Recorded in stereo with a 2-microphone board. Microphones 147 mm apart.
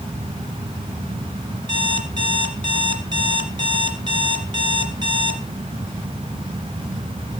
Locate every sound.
1.7 s an alarm clock: 30° right (ahead or behind), 2.5 m